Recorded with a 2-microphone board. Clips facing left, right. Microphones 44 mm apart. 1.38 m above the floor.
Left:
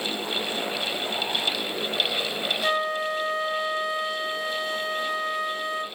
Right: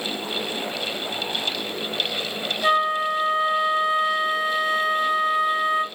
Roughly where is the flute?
Right.